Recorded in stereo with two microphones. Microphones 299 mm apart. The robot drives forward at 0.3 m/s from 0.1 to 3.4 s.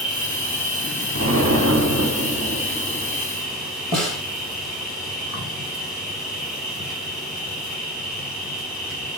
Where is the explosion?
60° right (ahead or behind), 3 m; by 3.2 s 65° right (ahead or behind), 3 m.